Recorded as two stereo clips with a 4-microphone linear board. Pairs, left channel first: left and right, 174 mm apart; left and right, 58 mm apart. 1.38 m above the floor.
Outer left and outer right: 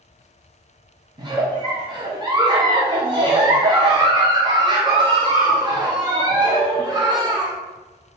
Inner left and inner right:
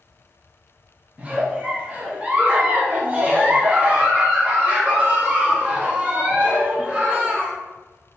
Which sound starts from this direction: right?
A giggle, at 1.2 s.